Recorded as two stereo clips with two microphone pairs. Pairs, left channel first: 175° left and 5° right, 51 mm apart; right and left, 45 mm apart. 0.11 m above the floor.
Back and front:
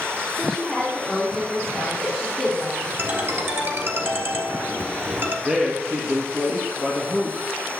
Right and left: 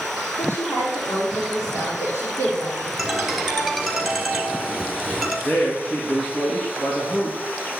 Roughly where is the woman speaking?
Right.